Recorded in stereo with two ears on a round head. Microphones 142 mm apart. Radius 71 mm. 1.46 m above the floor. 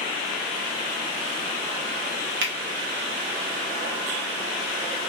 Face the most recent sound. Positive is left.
turn(degrees=-65)  # may be behind; listen again after turning